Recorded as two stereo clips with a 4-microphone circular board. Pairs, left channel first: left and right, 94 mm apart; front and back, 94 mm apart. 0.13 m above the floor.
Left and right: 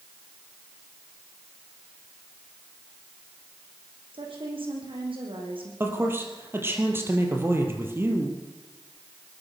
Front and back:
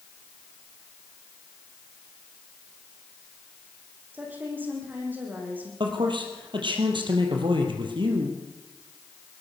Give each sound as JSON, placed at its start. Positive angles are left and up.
{"t": 4.1, "sound": "a woman speaking", "azimuth_deg": -110, "distance_m": 7.5}
{"t": 5.8, "sound": "a man speaking", "azimuth_deg": -155, "distance_m": 4.5}